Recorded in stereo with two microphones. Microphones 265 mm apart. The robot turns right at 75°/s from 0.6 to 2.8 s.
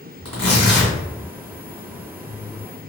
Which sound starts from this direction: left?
Tearing paper, at 0.2 s.